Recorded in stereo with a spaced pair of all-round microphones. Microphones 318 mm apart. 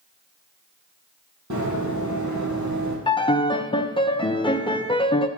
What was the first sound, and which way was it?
Running footsteps, 65° right (ahead or behind).